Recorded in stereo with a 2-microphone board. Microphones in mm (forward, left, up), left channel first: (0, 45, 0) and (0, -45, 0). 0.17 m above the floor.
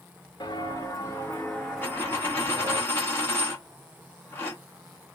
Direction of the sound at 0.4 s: 50° left (ahead or behind).